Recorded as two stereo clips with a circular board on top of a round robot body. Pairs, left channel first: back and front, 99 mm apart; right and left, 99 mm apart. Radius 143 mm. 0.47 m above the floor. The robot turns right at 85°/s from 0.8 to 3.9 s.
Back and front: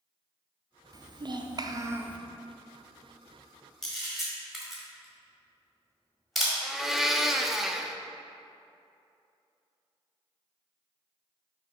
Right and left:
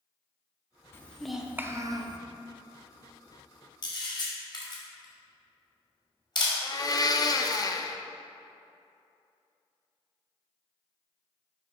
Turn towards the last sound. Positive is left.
turn(degrees=-85)